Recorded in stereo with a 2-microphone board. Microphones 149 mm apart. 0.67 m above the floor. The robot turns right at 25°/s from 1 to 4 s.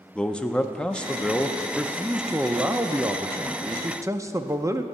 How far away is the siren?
I don't hear a siren.